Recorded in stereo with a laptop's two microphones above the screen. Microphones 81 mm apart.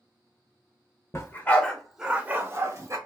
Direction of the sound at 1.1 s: 35° left (ahead or behind).